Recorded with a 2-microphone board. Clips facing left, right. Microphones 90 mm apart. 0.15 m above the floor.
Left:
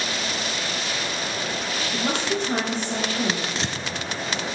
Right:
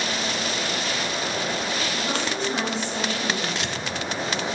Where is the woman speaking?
70° left (ahead or behind), 4 m.